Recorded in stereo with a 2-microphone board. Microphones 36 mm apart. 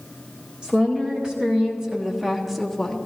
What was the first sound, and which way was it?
A woman speaking, 25° right (ahead or behind).